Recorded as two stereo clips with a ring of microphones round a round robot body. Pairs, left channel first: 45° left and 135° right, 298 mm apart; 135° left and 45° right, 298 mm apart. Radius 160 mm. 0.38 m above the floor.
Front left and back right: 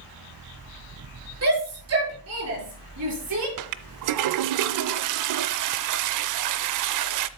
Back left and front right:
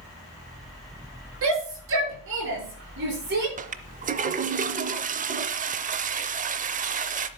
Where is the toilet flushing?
110° right, 0.5 m.